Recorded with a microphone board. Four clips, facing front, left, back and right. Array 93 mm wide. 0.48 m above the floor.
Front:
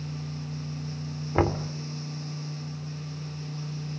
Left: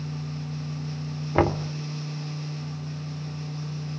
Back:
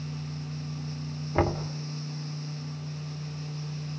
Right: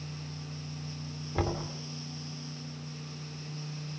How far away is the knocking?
About 1.2 m.